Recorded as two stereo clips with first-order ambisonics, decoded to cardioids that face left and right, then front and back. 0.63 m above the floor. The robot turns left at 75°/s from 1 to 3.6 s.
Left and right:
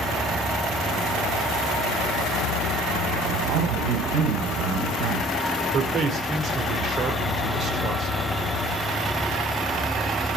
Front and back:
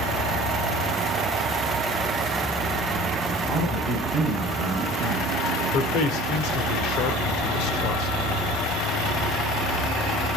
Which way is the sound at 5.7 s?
30° right.